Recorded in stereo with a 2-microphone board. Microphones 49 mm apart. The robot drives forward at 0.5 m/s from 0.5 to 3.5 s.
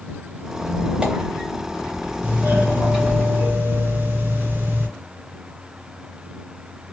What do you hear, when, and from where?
0.6 s a squeak: 25° right (ahead or behind), 0.5 m; by 3.2 s 5° right (ahead or behind), 1.8 m
2.2 s a doorbell: 40° right (ahead or behind), 1.6 m